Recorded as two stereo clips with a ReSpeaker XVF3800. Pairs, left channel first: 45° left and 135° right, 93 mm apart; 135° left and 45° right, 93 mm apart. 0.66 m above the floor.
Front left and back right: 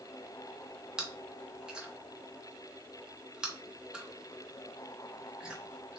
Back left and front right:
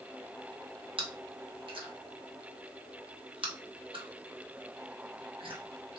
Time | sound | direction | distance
1.0 | chewing | 55° right | 0.6 m